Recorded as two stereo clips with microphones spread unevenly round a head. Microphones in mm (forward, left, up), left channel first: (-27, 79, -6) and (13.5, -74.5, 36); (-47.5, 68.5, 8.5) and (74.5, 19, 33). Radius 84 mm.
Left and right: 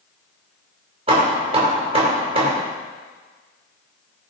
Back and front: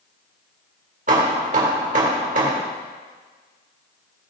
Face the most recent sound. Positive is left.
turn(degrees=-30)